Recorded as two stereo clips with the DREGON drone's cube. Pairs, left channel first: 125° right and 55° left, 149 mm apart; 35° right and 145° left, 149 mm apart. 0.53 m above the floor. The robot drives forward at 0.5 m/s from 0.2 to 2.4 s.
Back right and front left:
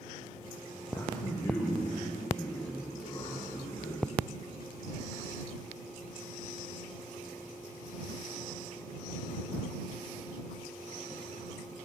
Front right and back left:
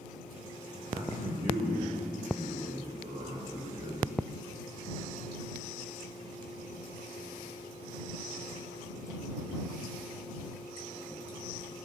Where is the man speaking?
165° right, 0.8 m; by 4.0 s 175° right, 1.4 m.